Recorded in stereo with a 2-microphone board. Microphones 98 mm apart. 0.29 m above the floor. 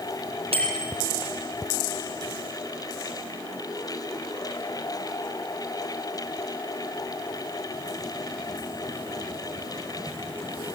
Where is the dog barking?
No dog barking in this recording.